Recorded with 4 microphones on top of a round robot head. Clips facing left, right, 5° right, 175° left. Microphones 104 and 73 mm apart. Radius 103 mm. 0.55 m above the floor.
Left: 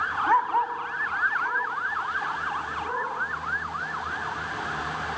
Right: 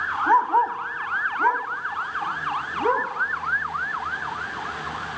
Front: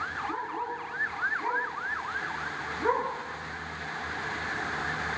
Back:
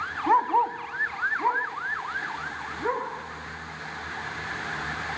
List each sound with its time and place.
0.3 s a dog barking: 160° right, 1.5 m; by 3.1 s 90° right, 3 m